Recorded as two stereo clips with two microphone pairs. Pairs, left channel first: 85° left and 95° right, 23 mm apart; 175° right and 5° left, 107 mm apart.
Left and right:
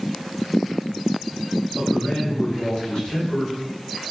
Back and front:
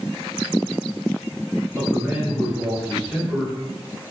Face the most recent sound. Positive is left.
turn(degrees=85)